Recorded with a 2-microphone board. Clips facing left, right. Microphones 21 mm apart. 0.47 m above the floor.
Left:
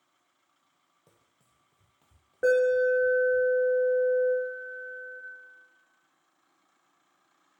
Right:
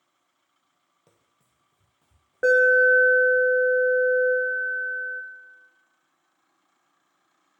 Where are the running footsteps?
15° right (ahead or behind), 0.6 m; by 3.4 s 75° left (ahead or behind), 1.8 m.